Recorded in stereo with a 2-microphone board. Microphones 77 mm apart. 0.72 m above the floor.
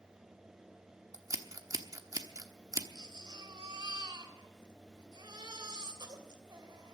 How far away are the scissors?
About 1.1 m.